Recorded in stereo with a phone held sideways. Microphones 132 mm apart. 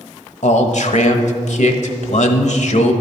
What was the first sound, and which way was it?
A man speaking, 60° left (ahead or behind).